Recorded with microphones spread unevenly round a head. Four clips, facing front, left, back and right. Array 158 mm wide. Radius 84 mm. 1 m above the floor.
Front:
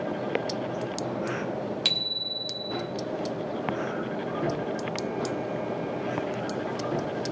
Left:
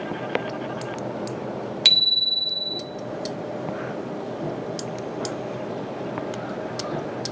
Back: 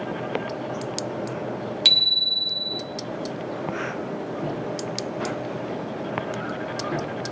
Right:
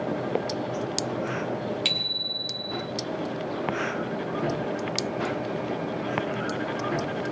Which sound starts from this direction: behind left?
A bicycle bell, at 1.9 s.